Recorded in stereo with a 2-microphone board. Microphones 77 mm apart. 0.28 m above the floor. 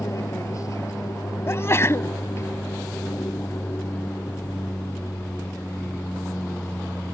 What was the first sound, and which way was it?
An aircraft, 45° left (ahead or behind).